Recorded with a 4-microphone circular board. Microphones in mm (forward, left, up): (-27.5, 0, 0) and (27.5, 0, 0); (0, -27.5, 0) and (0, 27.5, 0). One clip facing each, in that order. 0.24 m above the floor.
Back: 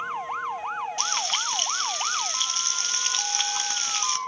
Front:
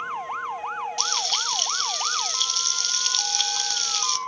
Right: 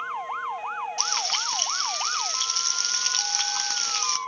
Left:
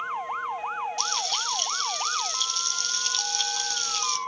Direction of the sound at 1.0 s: 120° right.